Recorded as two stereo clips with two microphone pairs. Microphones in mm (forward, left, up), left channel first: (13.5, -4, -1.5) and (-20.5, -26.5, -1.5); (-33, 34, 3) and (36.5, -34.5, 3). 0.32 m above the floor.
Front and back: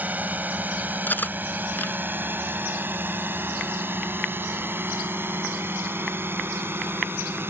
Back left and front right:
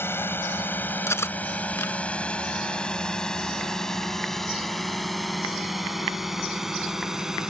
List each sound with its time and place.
0.0 s a drone: 170° right; by 7.5 s 130° right
1.1 s cutlery clinking: 75° left